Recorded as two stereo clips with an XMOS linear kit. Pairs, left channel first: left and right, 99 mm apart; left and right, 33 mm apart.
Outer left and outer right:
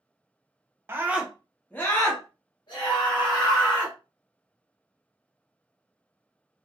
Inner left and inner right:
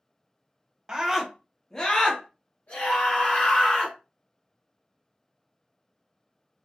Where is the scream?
25° right (ahead or behind), 0.7 m; by 4.0 s 65° left (ahead or behind), 1.6 m.